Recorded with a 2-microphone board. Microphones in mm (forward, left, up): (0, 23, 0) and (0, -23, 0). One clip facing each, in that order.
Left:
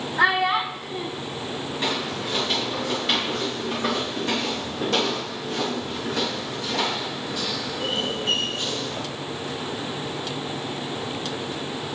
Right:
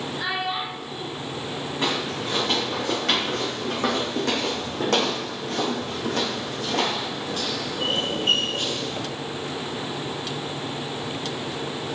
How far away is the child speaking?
About 1.5 m.